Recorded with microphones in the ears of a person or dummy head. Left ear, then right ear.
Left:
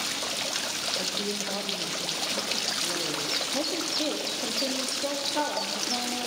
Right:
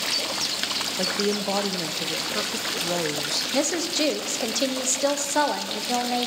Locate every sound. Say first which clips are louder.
1.0 s a woman speaking: right 5 dB; 80° right, 0.6 m
3.5 s a woman speaking: right 4 dB; 65° right (ahead or behind), 0.8 m